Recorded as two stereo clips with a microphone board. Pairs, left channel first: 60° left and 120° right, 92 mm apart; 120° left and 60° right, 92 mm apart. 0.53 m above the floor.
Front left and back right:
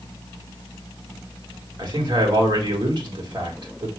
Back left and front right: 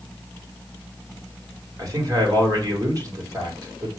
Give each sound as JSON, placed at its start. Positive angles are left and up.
{"t": 1.8, "sound": "a man speaking", "azimuth_deg": -100, "distance_m": 1.7}